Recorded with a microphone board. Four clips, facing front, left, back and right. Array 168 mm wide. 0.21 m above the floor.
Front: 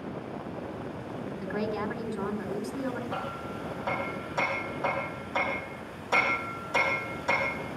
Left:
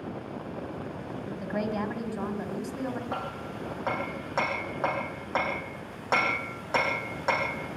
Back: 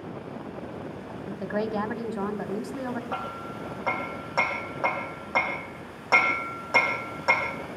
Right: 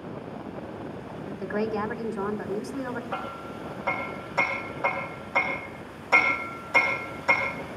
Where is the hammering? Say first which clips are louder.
Right 1 dB, back 1 dB; 135° left, 7 m.